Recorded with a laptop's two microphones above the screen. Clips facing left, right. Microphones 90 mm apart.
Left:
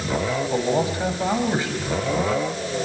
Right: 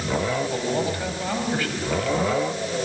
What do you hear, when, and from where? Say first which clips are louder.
0.5 s a man speaking: left 3 dB; 20° left (ahead or behind), 6 m